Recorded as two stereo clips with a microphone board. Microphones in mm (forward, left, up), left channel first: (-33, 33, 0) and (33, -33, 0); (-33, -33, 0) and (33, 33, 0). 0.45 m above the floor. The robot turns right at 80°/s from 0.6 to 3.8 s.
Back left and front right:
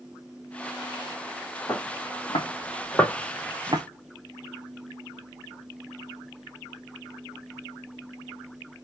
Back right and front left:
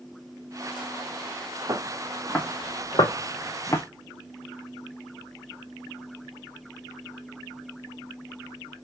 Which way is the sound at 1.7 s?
85° left.